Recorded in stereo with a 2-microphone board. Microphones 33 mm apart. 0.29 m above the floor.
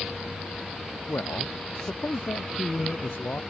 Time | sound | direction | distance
1.1 | a man speaking | 85° left | ?